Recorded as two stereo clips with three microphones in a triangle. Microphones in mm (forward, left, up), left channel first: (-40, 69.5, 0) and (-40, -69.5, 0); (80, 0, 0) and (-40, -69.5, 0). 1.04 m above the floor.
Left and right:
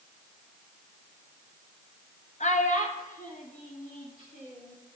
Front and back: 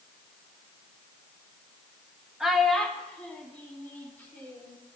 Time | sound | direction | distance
2.4 | a child speaking | 125° left | 0.9 m